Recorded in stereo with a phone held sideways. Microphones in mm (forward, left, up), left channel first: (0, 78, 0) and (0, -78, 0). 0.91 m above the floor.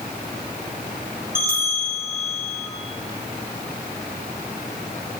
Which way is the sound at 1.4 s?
80° right.